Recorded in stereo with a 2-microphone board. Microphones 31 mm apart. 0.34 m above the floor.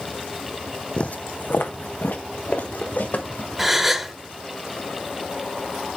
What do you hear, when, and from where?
1.0 s footsteps: 35° left (ahead or behind), 0.6 m; by 3.5 s 70° left (ahead or behind), 3.5 m
3.6 s a gasp: 10° right (ahead or behind), 1.2 m